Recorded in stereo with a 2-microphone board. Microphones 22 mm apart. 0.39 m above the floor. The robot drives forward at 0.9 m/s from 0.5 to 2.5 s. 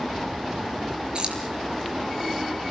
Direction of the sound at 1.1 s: 45° right (ahead or behind).